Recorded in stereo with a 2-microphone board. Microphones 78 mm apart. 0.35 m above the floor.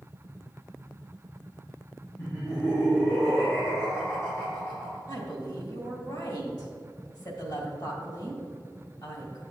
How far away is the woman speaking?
About 2.5 m.